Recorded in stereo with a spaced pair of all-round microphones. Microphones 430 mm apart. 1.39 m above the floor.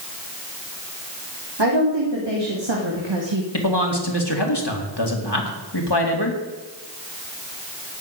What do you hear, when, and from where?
1.6 s a woman speaking: 75° right (ahead or behind), 3 m; by 3.4 s 85° right, 1.6 m
3.5 s a man speaking: 65° left (ahead or behind), 2.5 m